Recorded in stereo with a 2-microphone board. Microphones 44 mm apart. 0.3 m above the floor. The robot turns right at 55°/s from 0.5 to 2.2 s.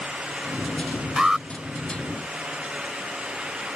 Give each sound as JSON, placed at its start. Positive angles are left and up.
{"t": 1.2, "sound": "an alarm", "side_deg": -20}